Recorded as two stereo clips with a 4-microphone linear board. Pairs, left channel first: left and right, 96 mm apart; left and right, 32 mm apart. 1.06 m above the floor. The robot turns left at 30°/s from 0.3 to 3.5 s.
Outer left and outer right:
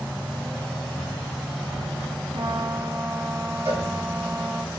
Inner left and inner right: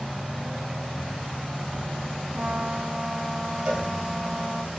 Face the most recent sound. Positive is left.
turn(degrees=-25)  # may be behind; listen again after turning